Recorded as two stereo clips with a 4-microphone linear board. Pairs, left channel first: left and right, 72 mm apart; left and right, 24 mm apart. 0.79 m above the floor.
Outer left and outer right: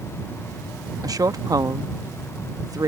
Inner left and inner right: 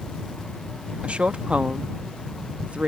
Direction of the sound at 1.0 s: 55° right (ahead or behind).